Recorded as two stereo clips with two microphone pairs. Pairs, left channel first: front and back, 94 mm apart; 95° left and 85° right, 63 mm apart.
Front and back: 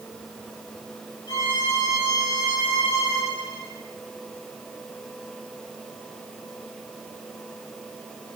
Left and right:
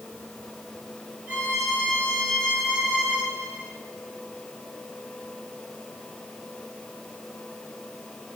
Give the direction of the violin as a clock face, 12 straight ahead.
1 o'clock.